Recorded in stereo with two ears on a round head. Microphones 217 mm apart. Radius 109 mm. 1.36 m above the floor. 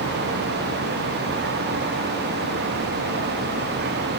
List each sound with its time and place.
Only background noise.